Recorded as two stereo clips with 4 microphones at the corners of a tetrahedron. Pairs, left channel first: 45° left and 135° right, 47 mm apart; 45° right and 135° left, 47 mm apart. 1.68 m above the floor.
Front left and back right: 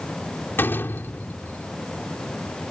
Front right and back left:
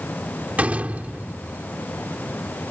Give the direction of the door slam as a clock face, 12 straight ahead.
9 o'clock.